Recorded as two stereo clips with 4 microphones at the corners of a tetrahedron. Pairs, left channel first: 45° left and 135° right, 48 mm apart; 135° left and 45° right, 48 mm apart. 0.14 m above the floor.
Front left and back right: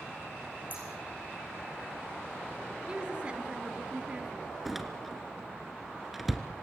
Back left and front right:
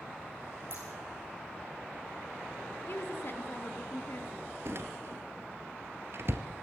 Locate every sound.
0.7 s scissors: 85° right, 6.5 m
2.9 s a woman speaking: 160° left, 3 m
4.7 s a door slam: 45° right, 2 m